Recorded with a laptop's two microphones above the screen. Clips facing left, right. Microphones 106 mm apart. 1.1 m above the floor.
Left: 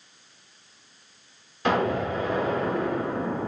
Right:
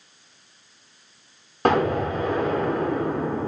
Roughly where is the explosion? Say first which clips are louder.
Right 3 dB; right.